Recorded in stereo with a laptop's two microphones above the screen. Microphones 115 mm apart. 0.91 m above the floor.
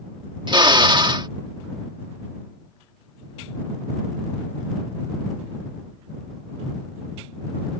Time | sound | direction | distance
0.5 | a drill | 45° right (ahead or behind) | ?